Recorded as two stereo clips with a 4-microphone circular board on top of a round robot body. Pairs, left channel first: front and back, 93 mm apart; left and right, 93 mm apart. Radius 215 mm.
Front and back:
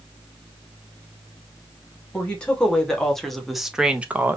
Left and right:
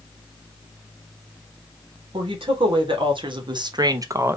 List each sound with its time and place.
2.1 s a woman speaking: 75° right, 1.9 m; by 4.4 s 135° right, 0.9 m